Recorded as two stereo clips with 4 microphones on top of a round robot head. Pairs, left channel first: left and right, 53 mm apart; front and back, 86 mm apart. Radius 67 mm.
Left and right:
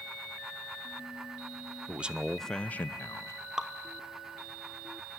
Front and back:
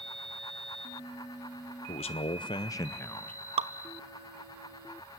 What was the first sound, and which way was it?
A man speaking, 30° right.